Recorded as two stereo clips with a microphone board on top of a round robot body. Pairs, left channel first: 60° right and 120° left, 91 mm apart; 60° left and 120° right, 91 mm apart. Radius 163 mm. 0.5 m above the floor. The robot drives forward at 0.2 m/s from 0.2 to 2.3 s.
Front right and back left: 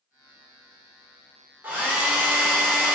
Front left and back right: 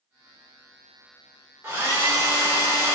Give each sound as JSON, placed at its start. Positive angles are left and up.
{"t": 1.6, "sound": "a hair dryer", "azimuth_deg": 180, "distance_m": 1.1}